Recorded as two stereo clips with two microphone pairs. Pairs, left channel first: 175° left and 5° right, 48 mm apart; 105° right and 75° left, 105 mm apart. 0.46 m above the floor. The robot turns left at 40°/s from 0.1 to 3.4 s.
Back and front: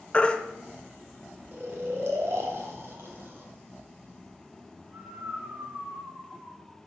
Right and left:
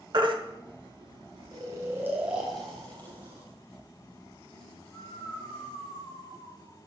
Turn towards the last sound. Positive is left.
turn(degrees=-50)